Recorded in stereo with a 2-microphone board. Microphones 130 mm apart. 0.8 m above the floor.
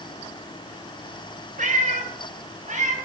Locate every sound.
1.6 s a cat meowing: 80° right, 2.5 m; by 3.0 s 70° right (ahead or behind), 3.5 m